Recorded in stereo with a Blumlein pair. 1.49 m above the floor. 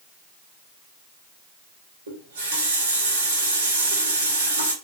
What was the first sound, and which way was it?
A running tap, 70° right.